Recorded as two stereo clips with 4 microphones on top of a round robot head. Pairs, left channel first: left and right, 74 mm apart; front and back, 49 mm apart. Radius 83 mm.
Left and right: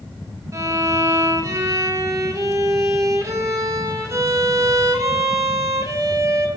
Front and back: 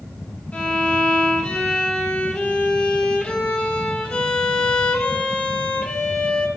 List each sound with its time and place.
0.5 s a violin: 60° right, 1.4 m